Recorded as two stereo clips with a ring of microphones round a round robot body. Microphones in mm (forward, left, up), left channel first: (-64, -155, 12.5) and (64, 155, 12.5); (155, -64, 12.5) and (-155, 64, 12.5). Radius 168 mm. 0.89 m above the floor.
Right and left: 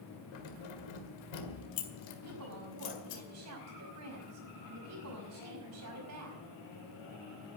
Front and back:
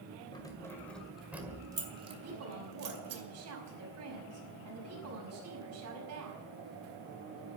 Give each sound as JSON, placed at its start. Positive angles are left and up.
{"t": 0.3, "sound": "keys jangling", "azimuth_deg": -100, "distance_m": 2.0}
{"t": 2.2, "sound": "a woman speaking", "azimuth_deg": 110, "distance_m": 5.0}